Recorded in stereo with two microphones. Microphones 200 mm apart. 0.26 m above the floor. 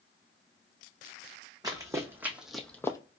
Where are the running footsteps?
15° right (ahead or behind), 1.1 m; by 3.0 s 15° left (ahead or behind), 0.5 m.